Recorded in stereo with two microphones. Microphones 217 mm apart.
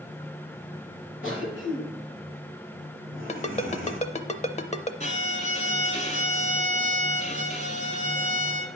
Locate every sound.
1.2 s a cough: 70° left (ahead or behind), 3 m
3.3 s a ringtone: 30° left (ahead or behind), 0.6 m
5.0 s a violin: 35° left (ahead or behind), 1.2 m